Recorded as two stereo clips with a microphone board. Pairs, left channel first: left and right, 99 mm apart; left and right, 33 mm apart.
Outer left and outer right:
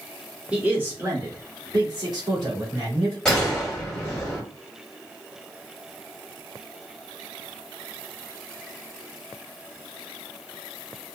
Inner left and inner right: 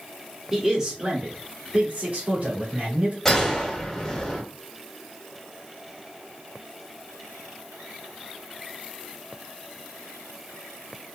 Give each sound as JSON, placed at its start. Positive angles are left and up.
{"t": 0.5, "sound": "a man speaking", "side_deg": -10, "distance_m": 1.1}
{"t": 3.2, "sound": "a gunshot", "side_deg": 10, "distance_m": 1.7}